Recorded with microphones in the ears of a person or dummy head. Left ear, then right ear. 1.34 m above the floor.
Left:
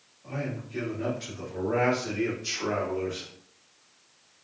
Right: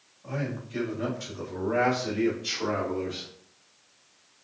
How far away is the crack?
I don't hear a crack.